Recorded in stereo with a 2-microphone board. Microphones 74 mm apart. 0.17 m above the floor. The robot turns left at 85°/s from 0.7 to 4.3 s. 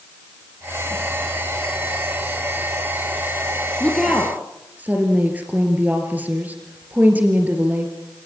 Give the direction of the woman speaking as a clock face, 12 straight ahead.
11 o'clock.